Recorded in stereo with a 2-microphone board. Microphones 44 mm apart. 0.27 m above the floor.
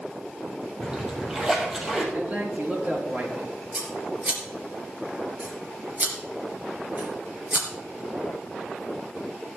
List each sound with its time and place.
0.8 s a splash: 15° right (ahead or behind), 3 m
2.1 s a man speaking: 40° right (ahead or behind), 4.5 m
3.7 s scissors: 45° right (ahead or behind), 3 m